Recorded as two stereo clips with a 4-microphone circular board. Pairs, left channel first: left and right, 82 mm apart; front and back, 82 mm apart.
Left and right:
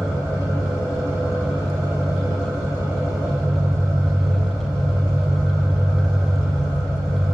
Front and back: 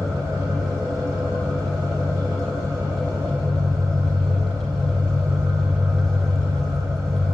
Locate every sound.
0.0 s an engine running: 140° right, 3 m